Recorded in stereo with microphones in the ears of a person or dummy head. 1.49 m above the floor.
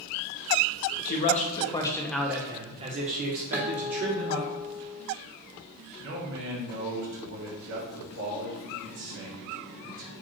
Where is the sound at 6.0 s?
70° right (ahead or behind), 2 m.